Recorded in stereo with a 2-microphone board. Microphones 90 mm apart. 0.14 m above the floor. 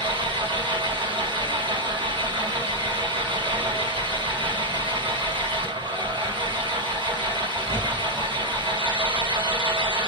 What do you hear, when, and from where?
0.0 s an engine running: 65° right (ahead or behind), 3.5 m